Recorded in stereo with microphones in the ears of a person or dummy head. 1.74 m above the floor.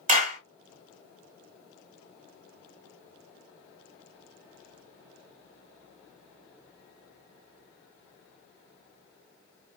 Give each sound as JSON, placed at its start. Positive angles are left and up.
{"t": 0.1, "sound": "a clap", "side_deg": -50, "distance_m": 1.9}